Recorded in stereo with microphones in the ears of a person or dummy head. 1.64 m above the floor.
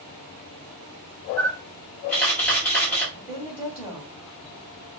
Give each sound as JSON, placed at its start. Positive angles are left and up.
{"t": 1.4, "sound": "a camera shutter", "side_deg": 10, "distance_m": 1.8}
{"t": 3.1, "sound": "a woman speaking", "side_deg": -10, "distance_m": 2.5}